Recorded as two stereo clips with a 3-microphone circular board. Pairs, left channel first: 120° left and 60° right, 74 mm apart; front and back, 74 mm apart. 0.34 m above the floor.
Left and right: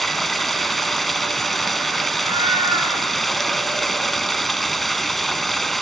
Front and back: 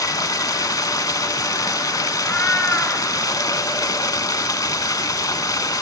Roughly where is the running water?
Ahead left.